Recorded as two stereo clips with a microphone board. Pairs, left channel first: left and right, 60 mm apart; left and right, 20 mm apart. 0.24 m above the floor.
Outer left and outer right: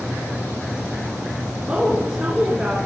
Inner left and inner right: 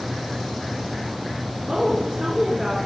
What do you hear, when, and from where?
1.7 s a woman speaking: 20° right (ahead or behind), 2.5 m; by 2.8 s 15° right (ahead or behind), 3 m